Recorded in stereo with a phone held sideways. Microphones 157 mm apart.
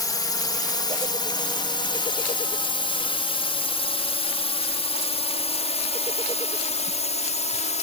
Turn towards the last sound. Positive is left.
turn(degrees=45)  # may be behind; listen again after turning